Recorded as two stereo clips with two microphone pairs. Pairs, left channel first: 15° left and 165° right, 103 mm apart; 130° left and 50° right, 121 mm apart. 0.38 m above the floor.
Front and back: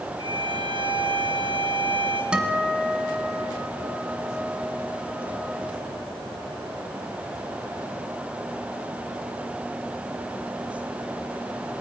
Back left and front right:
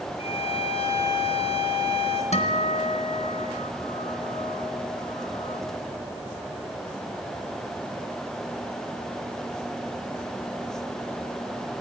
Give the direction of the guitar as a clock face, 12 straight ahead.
8 o'clock.